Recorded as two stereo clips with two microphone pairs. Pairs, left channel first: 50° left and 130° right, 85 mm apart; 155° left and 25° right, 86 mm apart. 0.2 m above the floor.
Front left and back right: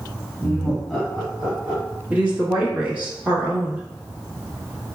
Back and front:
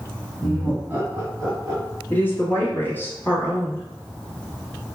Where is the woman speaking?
170° right, 1.2 m.